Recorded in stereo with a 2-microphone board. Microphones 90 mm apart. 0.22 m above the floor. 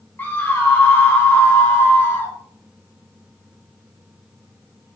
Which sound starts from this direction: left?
A scream, at 0.2 s.